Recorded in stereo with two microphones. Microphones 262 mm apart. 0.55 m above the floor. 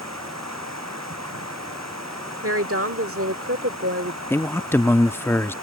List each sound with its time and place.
0.0 s running water: 80° right
2.4 s a woman speaking: 60° right (ahead or behind)
4.3 s a man speaking: 10° left (ahead or behind)